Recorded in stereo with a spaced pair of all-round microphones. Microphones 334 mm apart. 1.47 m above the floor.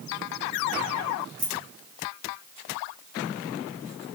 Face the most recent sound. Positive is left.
turn(degrees=45)  # may be behind; listen again after turning